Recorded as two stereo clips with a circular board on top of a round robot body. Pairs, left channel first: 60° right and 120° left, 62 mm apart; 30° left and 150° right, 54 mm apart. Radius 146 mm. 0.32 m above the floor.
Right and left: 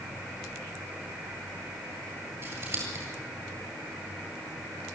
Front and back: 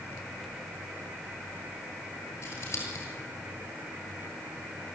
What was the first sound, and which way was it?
Scissors, 75° left.